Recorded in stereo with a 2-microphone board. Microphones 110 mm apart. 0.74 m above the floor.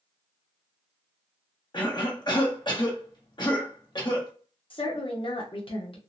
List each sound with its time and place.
1.7 s a cough: 45° left (ahead or behind), 0.9 m
4.7 s a woman speaking: 50° left (ahead or behind), 0.7 m